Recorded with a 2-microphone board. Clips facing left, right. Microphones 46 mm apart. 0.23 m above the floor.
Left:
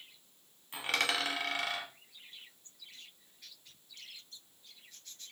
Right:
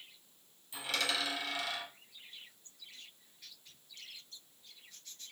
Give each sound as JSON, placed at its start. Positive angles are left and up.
{"t": 0.7, "sound": "a dropped coin", "side_deg": 50, "distance_m": 0.9}